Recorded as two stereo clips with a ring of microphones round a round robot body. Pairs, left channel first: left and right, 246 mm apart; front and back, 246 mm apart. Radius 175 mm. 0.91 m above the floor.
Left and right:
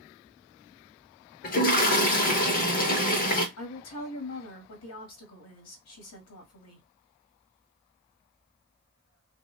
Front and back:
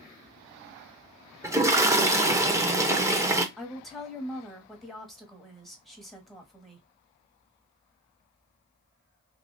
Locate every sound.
1.4 s a toilet flushing: 110° left, 0.6 m
3.6 s a woman speaking: 90° left, 1.6 m